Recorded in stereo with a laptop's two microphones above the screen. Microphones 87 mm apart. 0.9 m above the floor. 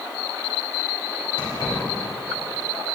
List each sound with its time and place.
1.4 s keys jangling: 70° left (ahead or behind), 2.5 m